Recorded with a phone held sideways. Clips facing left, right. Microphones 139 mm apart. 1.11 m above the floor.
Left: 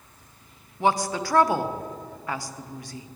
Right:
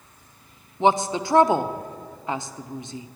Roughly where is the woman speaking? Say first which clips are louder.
Right 3 dB; right.